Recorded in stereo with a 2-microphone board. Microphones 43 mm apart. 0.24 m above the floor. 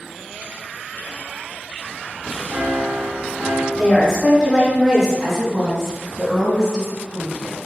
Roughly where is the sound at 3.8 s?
Centre.